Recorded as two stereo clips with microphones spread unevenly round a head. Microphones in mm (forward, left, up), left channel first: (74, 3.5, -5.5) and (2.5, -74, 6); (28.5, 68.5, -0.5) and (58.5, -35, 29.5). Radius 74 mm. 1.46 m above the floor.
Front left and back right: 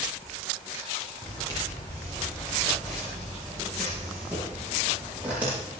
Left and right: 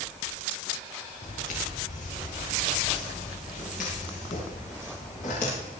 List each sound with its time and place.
1.2 s footsteps: 115° left, 7 m; by 5.8 s 150° left, 10 m